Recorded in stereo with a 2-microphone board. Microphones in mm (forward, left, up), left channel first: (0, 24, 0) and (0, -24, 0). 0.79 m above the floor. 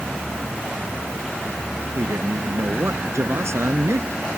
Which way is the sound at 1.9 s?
75° right (ahead or behind).